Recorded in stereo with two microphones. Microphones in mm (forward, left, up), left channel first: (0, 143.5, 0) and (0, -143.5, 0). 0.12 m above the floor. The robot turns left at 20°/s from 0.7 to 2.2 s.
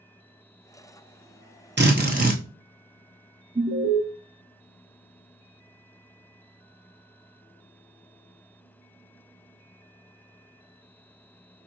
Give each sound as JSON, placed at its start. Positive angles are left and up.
{"t": 1.8, "sound": "a drill", "side_deg": -40, "distance_m": 1.1}
{"t": 3.5, "sound": "an alarm", "side_deg": -20, "distance_m": 0.8}